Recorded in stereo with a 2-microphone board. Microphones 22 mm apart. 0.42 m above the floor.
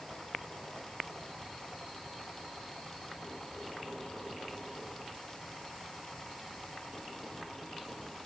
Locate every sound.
Only background noise.